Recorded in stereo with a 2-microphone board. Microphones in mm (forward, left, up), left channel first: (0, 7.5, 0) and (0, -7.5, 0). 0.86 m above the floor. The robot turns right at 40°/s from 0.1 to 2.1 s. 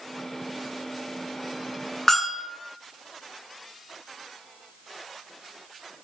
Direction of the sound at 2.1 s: 30° left (ahead or behind).